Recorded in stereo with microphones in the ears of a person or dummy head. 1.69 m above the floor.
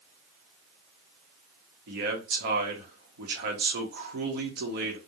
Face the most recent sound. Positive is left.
turn(degrees=-60)  # may be behind; listen again after turning